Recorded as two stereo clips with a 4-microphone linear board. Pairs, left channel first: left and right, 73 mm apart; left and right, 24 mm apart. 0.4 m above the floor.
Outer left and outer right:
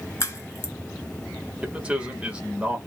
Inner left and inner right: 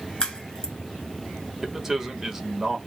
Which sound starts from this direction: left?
A crack, at 0.2 s.